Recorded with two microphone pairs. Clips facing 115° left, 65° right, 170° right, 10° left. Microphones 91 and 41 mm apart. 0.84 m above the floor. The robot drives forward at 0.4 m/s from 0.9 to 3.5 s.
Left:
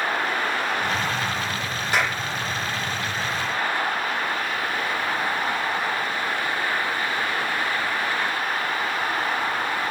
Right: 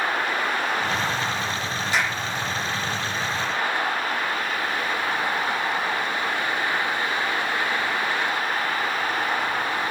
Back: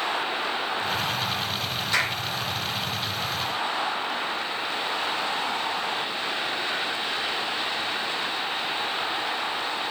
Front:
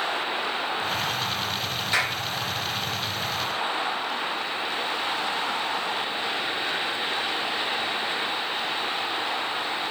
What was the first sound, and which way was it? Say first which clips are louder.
A clap: left 2 dB, even; 80° left.